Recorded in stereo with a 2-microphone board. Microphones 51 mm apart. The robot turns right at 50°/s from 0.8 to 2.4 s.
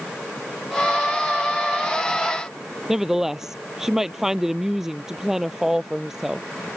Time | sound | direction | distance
2.9 | a woman speaking | 10° right (ahead or behind) | ?